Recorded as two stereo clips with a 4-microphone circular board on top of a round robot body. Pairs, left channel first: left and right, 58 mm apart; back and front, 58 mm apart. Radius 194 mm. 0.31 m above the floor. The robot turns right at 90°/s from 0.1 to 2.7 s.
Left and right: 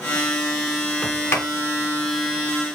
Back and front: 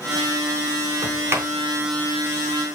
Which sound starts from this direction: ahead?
A sliding door, at 1.0 s.